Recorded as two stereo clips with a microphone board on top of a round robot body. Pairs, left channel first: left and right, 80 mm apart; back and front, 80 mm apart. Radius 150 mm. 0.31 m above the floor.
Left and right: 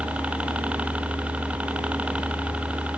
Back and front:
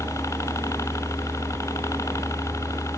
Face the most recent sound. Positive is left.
turn(degrees=-155)